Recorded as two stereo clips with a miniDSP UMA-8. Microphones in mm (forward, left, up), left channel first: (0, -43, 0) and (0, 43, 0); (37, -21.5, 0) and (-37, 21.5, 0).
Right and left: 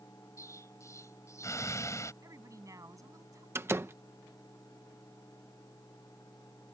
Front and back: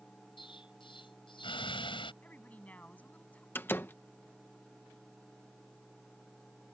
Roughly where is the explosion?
Ahead right.